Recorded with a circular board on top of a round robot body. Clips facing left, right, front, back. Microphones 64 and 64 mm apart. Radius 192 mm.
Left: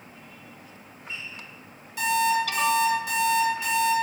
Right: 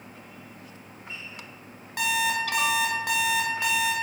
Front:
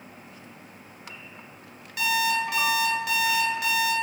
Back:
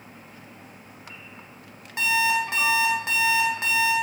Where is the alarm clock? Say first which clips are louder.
Left 3 dB, back 2 dB; 120° right, 2 m.